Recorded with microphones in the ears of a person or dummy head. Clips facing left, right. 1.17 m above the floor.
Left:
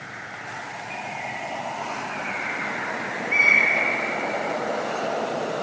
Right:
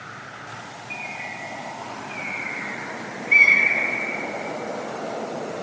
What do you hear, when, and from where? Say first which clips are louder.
0.9 s a bird: left 4 dB; 75° right (ahead or behind), 3.5 m